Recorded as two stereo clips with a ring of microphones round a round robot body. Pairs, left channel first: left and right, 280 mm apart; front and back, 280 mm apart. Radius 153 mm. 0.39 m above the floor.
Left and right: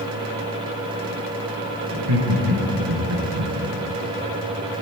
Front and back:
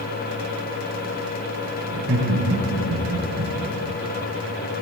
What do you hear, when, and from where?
1.9 s laughter: 125° right, 5.5 m; by 3.5 s 120° right, 4.5 m